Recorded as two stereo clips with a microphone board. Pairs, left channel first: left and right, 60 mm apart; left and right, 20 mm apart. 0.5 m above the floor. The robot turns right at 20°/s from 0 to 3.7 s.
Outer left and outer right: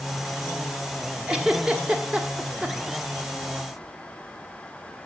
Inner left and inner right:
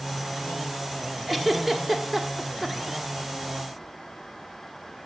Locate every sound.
1.3 s a giggle: 20° right (ahead or behind), 1.3 m; by 3.0 s 15° right (ahead or behind), 1.3 m